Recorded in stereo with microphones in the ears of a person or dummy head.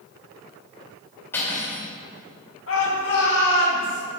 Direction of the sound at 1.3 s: 10° left (ahead or behind).